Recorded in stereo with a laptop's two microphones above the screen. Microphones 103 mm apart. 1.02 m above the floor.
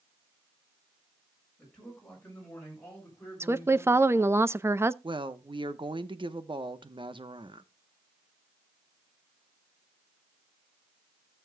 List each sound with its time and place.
1.6 s a man speaking: 5° left (ahead or behind), 5.5 m; by 4.3 s 20° left (ahead or behind), 7 m
3.4 s a woman speaking: 25° right (ahead or behind), 0.6 m
5.0 s a woman speaking: 55° right (ahead or behind), 0.9 m